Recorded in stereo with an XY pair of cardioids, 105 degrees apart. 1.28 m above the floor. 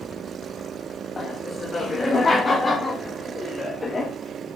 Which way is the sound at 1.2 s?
25° left.